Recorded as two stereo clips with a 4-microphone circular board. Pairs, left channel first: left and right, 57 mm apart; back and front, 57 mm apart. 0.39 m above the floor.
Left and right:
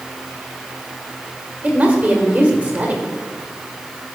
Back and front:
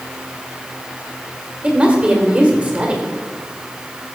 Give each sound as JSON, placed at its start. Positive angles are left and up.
{"t": 1.6, "sound": "a woman speaking", "azimuth_deg": -50, "distance_m": 1.5}